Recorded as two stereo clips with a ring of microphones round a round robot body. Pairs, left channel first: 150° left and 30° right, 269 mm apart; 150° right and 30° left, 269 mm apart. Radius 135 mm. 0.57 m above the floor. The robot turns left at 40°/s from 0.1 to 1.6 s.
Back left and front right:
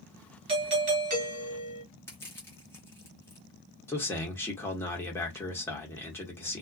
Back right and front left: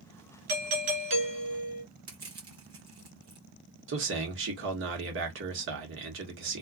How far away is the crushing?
About 1.2 m.